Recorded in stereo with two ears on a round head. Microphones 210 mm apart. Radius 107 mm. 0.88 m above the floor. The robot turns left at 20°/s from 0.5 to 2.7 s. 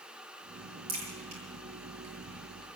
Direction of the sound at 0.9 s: 70° right (ahead or behind).